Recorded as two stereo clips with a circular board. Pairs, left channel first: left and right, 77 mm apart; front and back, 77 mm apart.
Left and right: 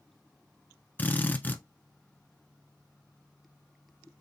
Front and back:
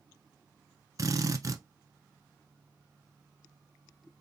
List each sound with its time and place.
1.0 s a drill: 150° left, 0.7 m